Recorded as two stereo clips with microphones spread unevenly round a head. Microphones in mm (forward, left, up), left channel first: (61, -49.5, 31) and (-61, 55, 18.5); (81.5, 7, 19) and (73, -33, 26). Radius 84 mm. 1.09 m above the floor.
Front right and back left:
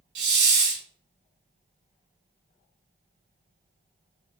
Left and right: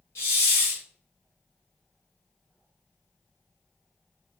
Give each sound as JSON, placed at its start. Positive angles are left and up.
{"t": 0.1, "sound": "a hiss", "azimuth_deg": 120, "distance_m": 1.2}